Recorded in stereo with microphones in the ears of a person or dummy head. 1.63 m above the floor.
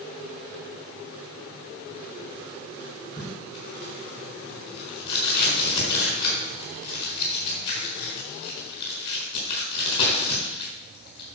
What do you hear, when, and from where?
3.2 s tape being pulled: 40° left (ahead or behind), 4.5 m